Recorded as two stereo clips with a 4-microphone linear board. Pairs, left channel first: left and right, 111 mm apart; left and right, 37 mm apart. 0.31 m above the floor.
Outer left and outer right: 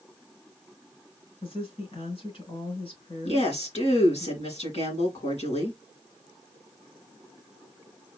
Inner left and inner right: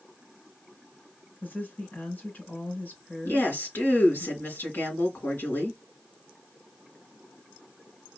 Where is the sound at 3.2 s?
70° left (ahead or behind), 3.5 m.